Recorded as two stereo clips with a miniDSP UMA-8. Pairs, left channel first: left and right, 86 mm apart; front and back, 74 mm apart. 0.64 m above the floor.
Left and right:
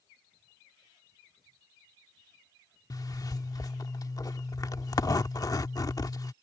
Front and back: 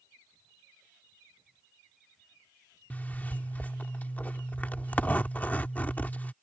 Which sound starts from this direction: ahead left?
A zipper, at 2.9 s.